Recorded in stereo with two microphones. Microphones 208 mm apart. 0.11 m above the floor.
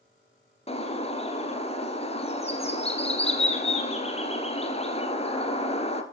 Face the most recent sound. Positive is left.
turn(degrees=30)  # may be behind; listen again after turning